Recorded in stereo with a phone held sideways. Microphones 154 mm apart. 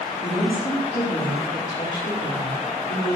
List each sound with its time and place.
0.2 s a woman speaking: 55° left (ahead or behind), 4 m